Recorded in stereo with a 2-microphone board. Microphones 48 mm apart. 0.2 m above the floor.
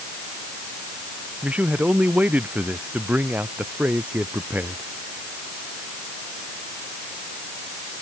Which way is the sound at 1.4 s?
30° right (ahead or behind).